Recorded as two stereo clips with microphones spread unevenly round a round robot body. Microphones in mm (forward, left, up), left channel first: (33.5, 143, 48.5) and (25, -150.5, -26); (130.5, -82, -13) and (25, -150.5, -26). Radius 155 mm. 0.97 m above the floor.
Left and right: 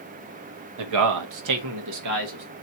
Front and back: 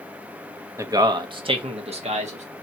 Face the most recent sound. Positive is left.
turn(degrees=-125)